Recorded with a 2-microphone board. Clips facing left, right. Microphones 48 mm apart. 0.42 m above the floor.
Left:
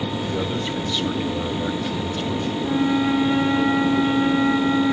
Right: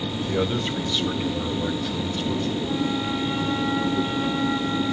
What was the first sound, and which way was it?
A man speaking, 20° right (ahead or behind).